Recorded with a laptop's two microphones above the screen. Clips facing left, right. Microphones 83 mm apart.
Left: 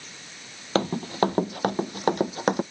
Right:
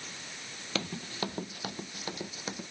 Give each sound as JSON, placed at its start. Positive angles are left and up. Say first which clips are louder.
{"t": 0.8, "sound": "running footsteps", "louder": "left 13 dB", "side_deg": 45}